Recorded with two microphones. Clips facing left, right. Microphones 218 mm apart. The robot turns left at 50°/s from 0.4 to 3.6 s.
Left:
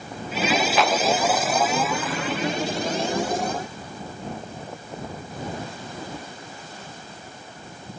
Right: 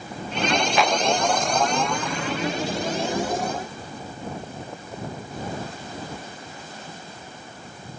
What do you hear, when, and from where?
0.8 s a clap: centre (ahead or behind); by 1.0 s 10° right (ahead or behind)